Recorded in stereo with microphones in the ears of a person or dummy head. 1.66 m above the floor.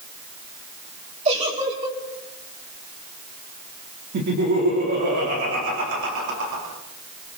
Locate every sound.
1.2 s a giggle: 35° right (ahead or behind), 6 m
4.1 s laughter: 50° right (ahead or behind), 5 m